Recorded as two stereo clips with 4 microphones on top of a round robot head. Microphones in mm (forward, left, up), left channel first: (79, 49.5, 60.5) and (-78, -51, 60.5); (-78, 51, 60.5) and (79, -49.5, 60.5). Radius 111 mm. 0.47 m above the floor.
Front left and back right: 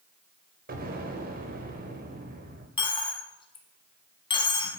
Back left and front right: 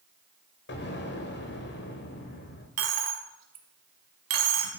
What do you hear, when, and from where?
0.7 s an explosion: 170° left, 1.6 m
2.8 s a dropped coin: 35° right, 1.1 m